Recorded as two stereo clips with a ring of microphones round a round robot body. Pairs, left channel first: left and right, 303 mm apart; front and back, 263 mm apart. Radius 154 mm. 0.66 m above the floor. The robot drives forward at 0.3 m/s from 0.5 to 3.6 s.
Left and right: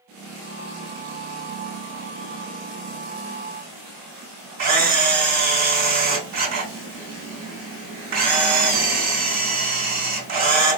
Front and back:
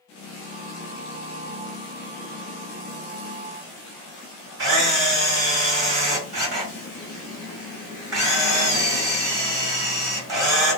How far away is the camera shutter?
About 2.5 m.